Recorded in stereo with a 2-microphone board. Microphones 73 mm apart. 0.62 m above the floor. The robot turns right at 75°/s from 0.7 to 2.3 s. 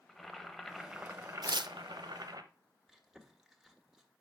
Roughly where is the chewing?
Centre.